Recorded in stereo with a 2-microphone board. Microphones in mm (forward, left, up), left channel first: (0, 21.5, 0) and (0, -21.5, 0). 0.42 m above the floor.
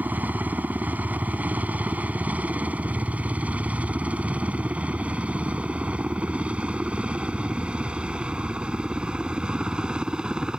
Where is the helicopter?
40° right (ahead or behind); by 10.6 s 20° right (ahead or behind).